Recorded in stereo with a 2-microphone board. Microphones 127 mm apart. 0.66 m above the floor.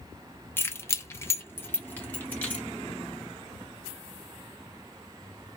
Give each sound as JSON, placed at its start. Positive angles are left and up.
{"t": 0.6, "sound": "keys jangling", "side_deg": 15, "distance_m": 0.5}